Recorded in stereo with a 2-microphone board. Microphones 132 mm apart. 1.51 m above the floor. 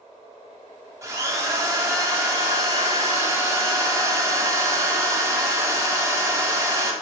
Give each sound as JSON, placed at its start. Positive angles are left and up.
{"t": 1.0, "sound": "a drill", "side_deg": -25, "distance_m": 1.5}